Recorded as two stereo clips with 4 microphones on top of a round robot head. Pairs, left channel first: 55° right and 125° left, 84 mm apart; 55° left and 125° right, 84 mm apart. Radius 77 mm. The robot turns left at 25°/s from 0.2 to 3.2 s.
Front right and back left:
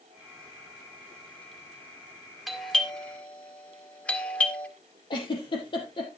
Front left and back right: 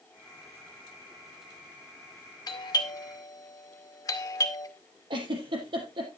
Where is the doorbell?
35° left, 2.5 m; by 4.7 s 15° left, 2.5 m.